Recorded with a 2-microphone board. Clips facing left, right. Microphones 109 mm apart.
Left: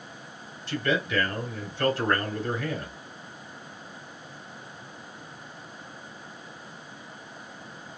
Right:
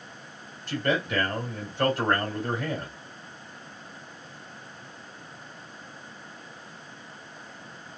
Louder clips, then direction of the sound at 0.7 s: Even; 50° right (ahead or behind).